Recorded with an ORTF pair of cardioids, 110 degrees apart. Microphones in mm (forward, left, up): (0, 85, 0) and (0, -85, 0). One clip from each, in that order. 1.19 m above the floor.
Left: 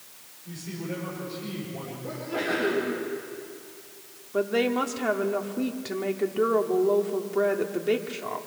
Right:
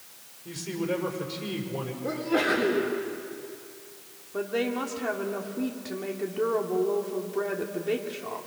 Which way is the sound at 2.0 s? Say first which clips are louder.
Right 4 dB; 45° right.